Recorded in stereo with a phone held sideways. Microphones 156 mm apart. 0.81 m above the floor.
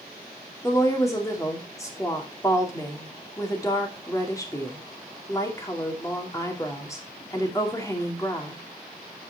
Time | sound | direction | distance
0.6 | a woman speaking | 20° left (ahead or behind) | 2.5 m